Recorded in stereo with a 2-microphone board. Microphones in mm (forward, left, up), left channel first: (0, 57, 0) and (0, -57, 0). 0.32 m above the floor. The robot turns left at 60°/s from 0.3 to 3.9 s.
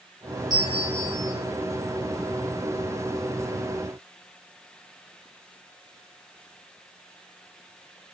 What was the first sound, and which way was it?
A bell, 40° right.